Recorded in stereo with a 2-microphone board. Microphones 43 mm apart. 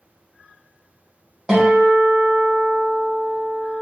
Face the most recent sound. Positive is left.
turn(degrees=-15)  # may be behind; listen again after turning